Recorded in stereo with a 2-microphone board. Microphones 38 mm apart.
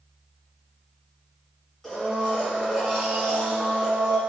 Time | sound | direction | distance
1.8 | a blender | 10° left (ahead or behind) | 1.4 m